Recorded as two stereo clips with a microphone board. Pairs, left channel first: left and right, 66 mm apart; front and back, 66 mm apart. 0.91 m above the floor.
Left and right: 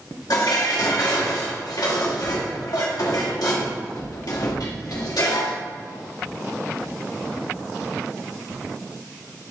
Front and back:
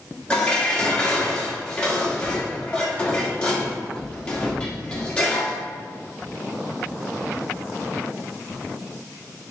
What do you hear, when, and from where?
0.3 s dishes clattering: 75° left, 1.4 m